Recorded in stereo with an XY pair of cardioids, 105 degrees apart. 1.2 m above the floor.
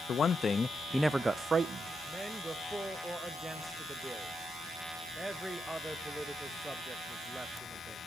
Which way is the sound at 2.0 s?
10° right.